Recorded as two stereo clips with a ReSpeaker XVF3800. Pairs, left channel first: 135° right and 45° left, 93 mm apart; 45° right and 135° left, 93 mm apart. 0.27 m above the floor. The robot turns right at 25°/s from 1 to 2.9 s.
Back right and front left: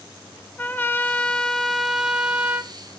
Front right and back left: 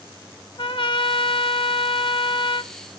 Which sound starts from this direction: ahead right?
A trumpet, at 0.6 s.